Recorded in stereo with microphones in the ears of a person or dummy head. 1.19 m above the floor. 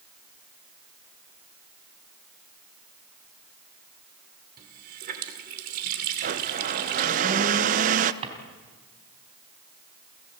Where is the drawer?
30° right (ahead or behind), 4 m.